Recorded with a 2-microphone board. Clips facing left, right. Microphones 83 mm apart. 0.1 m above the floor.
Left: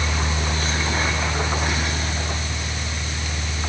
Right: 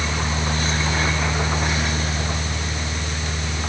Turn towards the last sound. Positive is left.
No sound to turn to.